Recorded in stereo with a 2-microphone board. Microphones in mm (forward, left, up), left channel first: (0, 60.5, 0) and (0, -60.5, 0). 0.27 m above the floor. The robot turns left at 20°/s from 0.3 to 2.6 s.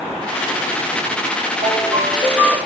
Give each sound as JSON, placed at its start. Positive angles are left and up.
{"t": 1.6, "sound": "a ringtone", "side_deg": -65, "distance_m": 3.0}